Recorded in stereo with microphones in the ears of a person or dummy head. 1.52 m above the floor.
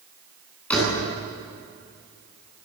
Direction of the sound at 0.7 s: 10° left (ahead or behind).